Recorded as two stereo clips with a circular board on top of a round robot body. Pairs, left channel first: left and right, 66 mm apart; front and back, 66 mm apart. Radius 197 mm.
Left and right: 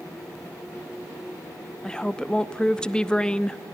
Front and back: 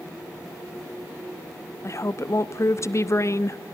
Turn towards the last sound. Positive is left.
turn(degrees=20)